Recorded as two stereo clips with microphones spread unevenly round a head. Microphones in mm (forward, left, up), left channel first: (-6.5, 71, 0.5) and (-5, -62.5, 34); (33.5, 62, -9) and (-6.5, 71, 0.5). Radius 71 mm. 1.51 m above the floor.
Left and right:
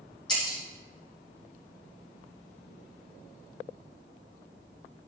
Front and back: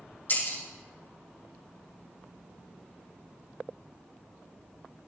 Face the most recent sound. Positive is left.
turn(degrees=25)